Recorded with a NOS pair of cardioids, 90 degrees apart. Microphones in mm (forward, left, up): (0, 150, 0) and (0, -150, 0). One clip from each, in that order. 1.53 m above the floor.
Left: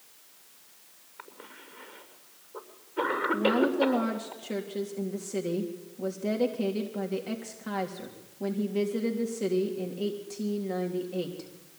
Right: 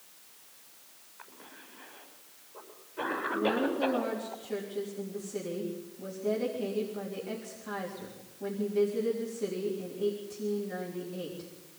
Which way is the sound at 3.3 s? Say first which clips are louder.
Left 4 dB; 55° left.